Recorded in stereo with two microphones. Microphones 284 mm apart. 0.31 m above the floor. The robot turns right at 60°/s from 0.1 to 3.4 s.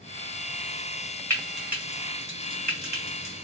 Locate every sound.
1.3 s frying: 10° left (ahead or behind), 1.7 m; by 3.3 s 35° right (ahead or behind), 1.7 m